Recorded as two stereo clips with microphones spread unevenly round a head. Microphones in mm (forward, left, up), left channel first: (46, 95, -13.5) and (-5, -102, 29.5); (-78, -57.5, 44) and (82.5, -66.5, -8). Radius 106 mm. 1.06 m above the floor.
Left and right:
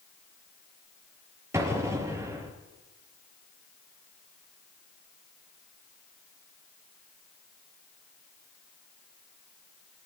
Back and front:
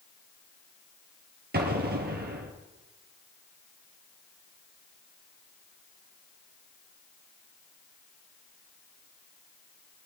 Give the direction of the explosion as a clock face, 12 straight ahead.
1 o'clock.